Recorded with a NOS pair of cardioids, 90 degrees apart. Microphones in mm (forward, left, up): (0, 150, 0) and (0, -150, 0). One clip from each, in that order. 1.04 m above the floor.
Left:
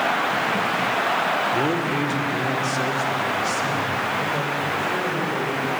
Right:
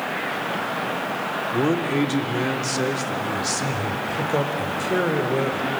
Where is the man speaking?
20° right, 2.5 m; by 5.7 s 70° right, 4.5 m.